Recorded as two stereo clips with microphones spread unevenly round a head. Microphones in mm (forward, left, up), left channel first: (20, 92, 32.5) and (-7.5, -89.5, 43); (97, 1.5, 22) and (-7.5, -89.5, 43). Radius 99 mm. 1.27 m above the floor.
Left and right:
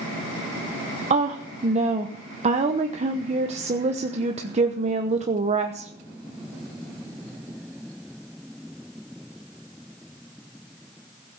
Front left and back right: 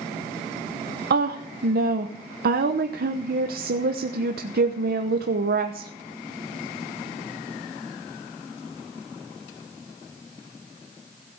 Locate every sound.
1.1 s a woman speaking: 155° right, 1.0 m